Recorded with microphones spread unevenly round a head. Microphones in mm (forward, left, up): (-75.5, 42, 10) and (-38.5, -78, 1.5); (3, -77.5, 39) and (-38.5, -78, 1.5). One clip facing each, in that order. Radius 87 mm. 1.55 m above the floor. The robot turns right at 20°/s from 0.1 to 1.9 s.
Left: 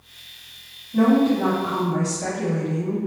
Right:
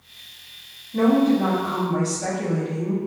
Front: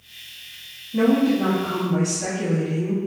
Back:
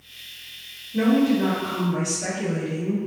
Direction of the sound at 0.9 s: 25° left.